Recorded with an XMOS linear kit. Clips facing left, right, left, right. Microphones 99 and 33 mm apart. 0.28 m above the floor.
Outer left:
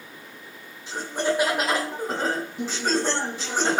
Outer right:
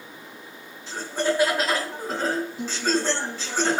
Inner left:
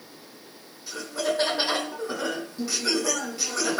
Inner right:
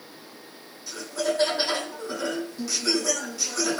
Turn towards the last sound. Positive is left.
turn(degrees=20)  # may be behind; listen again after turning